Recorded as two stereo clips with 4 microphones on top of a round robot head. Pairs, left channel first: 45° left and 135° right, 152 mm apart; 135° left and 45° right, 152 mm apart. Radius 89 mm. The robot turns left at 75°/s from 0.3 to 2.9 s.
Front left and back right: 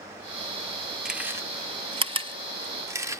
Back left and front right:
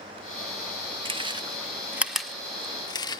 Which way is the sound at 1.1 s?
50° right.